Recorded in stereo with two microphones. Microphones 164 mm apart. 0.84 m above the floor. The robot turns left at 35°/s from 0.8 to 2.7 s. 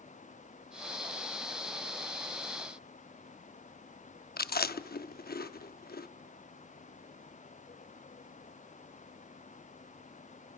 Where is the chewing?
80° left, 0.7 m.